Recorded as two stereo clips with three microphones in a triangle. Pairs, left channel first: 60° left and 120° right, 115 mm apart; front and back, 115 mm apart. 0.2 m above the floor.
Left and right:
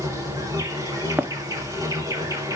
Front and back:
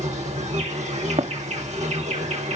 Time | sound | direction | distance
0.0 | an insect | 175° left | 10 m
1.2 | running footsteps | 165° left | 1.4 m